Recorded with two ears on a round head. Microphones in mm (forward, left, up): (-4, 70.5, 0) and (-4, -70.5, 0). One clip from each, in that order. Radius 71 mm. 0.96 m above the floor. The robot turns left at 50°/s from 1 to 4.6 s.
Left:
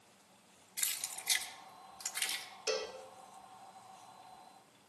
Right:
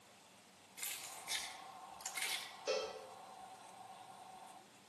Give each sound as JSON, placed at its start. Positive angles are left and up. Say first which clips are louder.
{"t": 0.8, "sound": "keys jangling", "louder": "left 7 dB", "side_deg": 80, "distance_m": 1.1}
{"t": 2.7, "sound": "a cowbell", "louder": "left 3 dB", "side_deg": 50, "distance_m": 1.6}